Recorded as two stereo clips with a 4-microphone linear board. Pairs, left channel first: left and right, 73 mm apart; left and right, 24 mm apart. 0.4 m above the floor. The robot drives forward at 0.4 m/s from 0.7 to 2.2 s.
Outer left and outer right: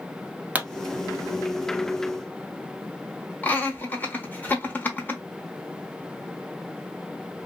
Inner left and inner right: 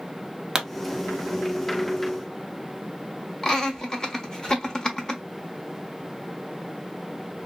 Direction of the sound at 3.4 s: 25° left (ahead or behind).